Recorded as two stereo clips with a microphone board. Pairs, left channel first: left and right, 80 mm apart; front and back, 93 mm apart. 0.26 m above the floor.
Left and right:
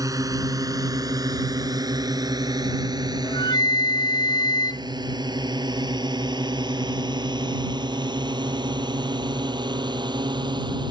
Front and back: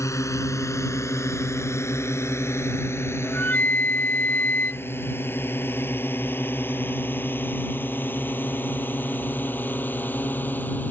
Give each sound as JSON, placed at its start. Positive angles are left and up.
{"t": 0.0, "sound": "a drone", "azimuth_deg": -55}
{"t": 3.2, "sound": "a flute", "azimuth_deg": 70}